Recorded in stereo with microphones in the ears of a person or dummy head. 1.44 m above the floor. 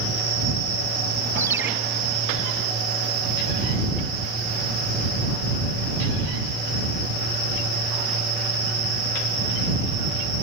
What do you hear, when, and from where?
1.4 s a ringtone: 10° right (ahead or behind)